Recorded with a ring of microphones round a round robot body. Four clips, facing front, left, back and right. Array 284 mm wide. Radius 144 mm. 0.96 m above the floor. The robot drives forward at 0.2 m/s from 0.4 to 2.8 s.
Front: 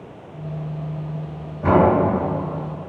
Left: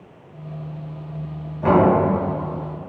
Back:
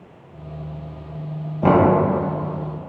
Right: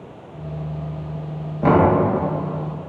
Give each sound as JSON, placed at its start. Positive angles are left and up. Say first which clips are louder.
{"t": 1.6, "sound": "knocking", "louder": "right 1 dB, back 1 dB", "azimuth_deg": -145, "distance_m": 0.7}